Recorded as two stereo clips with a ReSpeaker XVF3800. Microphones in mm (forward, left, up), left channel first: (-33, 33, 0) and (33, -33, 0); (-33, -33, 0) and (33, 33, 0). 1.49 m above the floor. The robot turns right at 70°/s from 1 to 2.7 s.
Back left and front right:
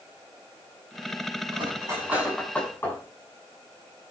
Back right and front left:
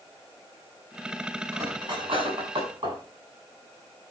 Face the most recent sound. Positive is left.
turn(degrees=70)